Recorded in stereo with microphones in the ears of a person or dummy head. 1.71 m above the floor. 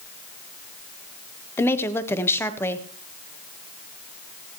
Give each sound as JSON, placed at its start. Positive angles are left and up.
{"t": 1.6, "sound": "a woman speaking", "side_deg": 15, "distance_m": 1.3}